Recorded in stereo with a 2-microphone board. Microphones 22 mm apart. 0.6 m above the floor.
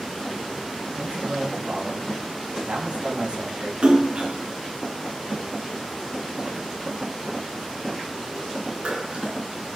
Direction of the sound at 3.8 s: 55° right (ahead or behind).